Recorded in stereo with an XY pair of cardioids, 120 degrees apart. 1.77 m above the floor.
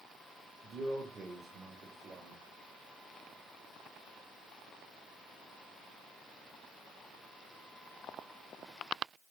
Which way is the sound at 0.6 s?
30° right.